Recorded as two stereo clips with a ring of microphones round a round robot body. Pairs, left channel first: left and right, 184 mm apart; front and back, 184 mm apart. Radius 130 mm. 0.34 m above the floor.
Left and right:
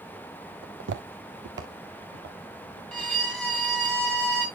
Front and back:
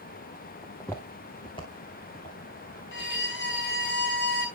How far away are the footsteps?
About 0.5 m.